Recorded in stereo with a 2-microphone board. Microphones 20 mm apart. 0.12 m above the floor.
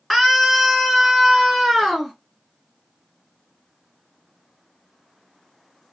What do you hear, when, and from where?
0.1 s a scream: centre (ahead or behind), 1.2 m; by 2.1 s 10° right (ahead or behind), 1.5 m